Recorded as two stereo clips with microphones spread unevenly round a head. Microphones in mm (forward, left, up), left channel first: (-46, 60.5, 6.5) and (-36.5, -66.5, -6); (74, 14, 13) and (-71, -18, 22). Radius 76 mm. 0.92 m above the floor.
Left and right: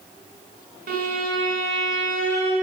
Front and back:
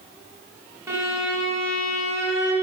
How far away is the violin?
About 5.5 m.